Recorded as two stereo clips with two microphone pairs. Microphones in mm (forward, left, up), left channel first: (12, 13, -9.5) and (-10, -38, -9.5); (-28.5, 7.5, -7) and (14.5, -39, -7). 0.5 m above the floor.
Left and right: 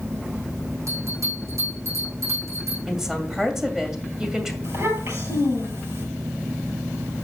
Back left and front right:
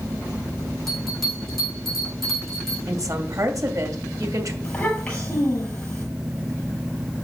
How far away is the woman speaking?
About 2 m.